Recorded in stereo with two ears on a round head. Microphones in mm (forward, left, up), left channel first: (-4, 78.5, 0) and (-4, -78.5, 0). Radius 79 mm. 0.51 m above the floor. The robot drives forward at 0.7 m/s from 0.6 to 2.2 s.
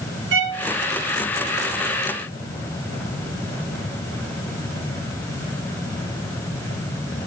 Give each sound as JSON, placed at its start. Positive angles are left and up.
{"t": 0.3, "sound": "a violin", "side_deg": -75, "distance_m": 2.0}